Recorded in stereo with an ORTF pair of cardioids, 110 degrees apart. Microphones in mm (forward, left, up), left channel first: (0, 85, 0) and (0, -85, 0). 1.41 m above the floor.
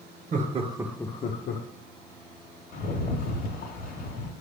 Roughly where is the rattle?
Ahead left.